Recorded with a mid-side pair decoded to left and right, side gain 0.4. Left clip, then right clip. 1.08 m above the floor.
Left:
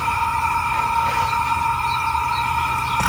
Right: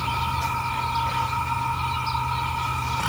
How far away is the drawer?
I don't hear a drawer.